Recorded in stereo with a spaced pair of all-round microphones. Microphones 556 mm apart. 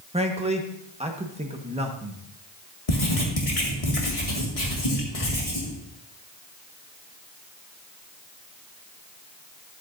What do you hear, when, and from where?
0.1 s a man speaking: 10° right (ahead or behind), 1.2 m
2.9 s writing: 70° left (ahead or behind), 1.9 m